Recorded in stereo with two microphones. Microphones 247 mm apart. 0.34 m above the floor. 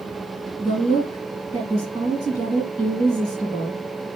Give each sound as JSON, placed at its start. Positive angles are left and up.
{"t": 0.6, "sound": "a woman speaking", "side_deg": 15, "distance_m": 5.5}